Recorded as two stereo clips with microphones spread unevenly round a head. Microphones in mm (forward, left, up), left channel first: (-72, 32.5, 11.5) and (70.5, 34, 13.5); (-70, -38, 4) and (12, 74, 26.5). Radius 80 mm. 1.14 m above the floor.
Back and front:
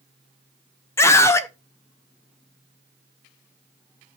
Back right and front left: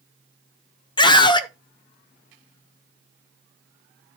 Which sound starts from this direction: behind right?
A scream, at 1.0 s.